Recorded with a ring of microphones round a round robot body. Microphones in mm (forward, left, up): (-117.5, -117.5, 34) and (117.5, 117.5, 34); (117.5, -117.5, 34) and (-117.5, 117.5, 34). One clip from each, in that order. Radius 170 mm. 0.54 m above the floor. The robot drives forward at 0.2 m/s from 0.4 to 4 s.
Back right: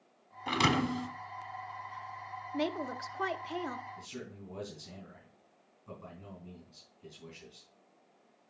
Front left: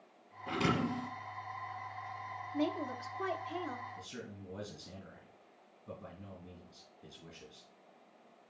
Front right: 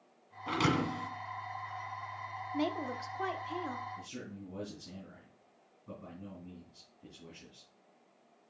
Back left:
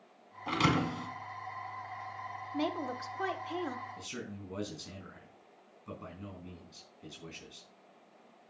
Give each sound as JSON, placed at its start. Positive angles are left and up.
{"t": 0.5, "sound": "a thud", "azimuth_deg": -140, "distance_m": 1.3}
{"t": 2.5, "sound": "a woman speaking", "azimuth_deg": -125, "distance_m": 0.7}
{"t": 4.0, "sound": "a man speaking", "azimuth_deg": 140, "distance_m": 4.5}